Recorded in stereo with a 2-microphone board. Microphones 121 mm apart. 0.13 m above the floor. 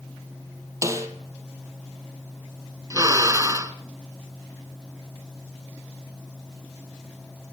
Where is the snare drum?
25° right (ahead or behind), 2 m.